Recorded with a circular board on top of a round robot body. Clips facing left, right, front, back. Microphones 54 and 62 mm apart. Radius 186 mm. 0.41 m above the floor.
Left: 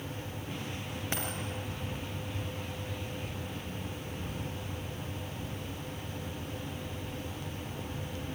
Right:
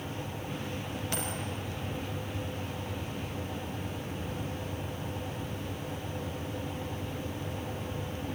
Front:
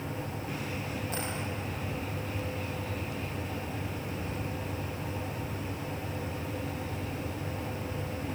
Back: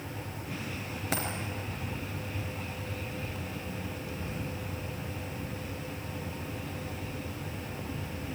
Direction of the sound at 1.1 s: 160° left.